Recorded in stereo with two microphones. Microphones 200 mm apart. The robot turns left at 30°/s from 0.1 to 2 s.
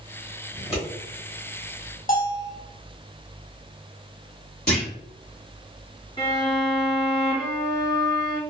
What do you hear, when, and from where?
0.5 s scissors: 30° left (ahead or behind), 1.5 m; by 0.8 s 25° left (ahead or behind), 1.5 m
2.1 s a bell: 45° left (ahead or behind), 0.6 m
4.7 s a clunk: 50° left (ahead or behind), 1.4 m
6.2 s a violin: 30° left (ahead or behind), 1.3 m